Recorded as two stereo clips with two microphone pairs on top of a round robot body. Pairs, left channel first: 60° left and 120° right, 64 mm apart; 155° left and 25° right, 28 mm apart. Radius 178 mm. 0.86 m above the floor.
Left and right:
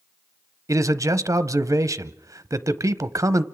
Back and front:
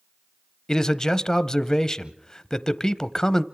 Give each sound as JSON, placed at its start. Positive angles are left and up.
{"t": 0.7, "sound": "a man speaking", "azimuth_deg": -115, "distance_m": 1.0}